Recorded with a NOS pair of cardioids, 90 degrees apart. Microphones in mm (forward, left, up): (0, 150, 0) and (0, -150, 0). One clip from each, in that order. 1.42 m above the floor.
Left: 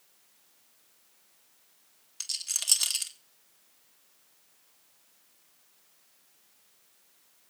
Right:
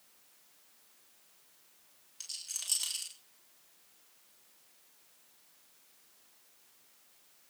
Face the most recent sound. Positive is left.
turn(degrees=60)